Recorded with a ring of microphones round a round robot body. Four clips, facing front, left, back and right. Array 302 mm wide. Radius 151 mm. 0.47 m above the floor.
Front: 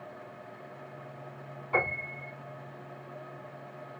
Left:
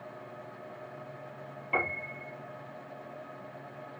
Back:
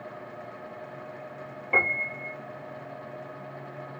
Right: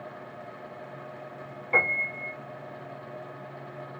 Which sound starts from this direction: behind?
A piano, at 1.7 s.